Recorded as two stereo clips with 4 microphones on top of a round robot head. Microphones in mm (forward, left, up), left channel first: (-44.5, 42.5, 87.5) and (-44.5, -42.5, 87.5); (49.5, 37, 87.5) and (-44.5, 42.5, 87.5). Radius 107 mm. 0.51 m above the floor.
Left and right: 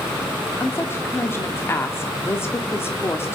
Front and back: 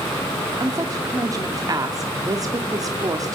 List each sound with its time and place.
0.6 s a woman speaking: 140° left, 1.7 m